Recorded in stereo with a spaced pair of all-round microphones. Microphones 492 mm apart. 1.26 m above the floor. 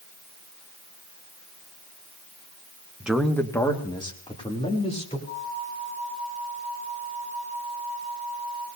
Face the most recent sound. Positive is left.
turn(degrees=70)  # may be behind; listen again after turning